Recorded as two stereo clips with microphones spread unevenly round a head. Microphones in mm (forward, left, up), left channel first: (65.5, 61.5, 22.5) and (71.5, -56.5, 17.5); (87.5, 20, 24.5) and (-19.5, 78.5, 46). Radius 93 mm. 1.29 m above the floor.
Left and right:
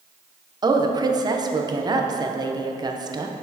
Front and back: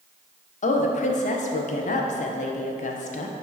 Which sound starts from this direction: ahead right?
A woman speaking, at 0.6 s.